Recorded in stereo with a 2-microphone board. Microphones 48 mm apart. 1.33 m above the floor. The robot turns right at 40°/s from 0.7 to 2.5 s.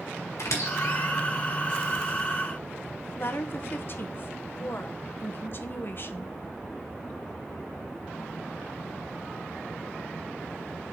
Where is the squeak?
80° left, 3.5 m; by 1.1 s 70° left (ahead or behind), 3.5 m.